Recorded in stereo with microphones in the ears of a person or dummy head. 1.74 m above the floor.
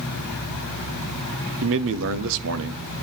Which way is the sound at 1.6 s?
70° right (ahead or behind).